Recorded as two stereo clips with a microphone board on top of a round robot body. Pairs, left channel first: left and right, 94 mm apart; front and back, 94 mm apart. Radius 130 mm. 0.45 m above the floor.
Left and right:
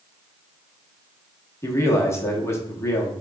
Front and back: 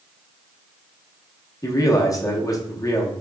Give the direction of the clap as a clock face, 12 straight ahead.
I don't hear a clap.